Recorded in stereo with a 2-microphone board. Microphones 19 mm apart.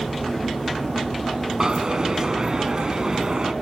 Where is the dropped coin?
40° right (ahead or behind), 1.7 m.